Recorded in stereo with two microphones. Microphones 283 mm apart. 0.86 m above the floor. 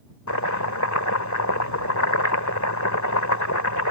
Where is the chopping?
85° left.